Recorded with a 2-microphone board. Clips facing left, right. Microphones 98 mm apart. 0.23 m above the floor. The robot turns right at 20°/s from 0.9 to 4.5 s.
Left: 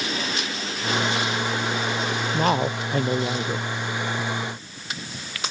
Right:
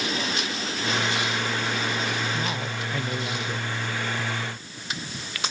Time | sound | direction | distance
2.3 | a man speaking | 50° left (ahead or behind) | ?